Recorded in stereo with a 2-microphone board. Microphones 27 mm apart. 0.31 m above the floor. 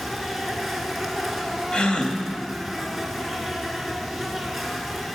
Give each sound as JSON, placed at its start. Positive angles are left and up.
{"t": 0.0, "sound": "an insect", "side_deg": -5, "distance_m": 1.5}
{"t": 1.7, "sound": "a gasp", "side_deg": 40, "distance_m": 1.0}